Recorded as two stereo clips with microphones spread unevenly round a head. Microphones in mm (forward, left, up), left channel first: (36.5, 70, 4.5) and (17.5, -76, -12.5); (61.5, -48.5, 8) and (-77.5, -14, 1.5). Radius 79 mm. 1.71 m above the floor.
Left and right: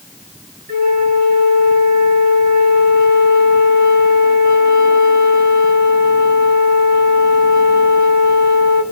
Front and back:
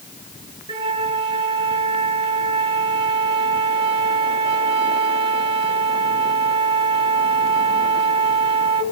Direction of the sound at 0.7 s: 140° right.